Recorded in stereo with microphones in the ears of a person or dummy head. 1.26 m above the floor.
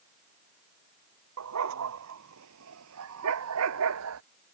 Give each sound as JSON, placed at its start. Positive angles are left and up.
{"t": 1.4, "sound": "a dog barking", "side_deg": -85}